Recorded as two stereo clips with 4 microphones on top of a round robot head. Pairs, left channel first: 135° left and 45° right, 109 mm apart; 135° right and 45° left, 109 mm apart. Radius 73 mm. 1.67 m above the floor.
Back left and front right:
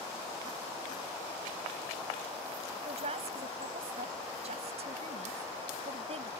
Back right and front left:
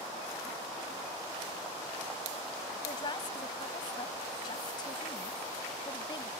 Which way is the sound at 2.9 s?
80° right.